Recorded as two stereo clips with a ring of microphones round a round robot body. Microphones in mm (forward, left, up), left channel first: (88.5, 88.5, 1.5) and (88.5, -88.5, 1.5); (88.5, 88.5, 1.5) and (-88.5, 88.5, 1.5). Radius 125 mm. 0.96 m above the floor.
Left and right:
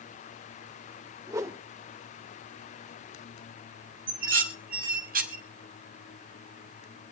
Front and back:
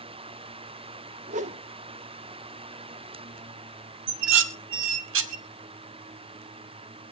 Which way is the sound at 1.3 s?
160° right.